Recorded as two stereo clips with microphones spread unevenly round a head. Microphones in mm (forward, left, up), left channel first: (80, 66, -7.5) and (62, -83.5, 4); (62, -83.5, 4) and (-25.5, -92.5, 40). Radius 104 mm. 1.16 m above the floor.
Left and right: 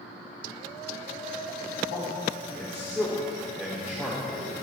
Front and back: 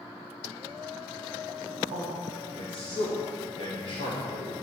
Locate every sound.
1.9 s a man speaking: 160° right, 3 m; by 4.5 s 175° left, 5.5 m